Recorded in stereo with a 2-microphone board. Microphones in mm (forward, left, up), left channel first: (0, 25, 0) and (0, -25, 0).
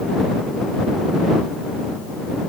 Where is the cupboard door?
I don't hear a cupboard door.